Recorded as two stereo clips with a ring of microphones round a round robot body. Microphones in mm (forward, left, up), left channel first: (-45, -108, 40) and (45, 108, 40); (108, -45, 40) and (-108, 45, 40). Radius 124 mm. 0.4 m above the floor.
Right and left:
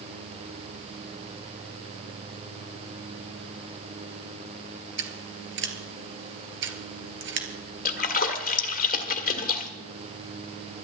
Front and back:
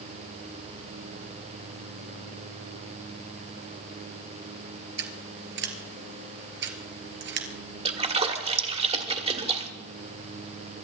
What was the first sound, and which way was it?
Scissors, 110° left.